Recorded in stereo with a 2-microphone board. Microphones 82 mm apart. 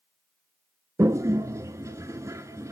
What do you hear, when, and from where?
1.0 s a toilet flushing: 40° right (ahead or behind), 0.5 m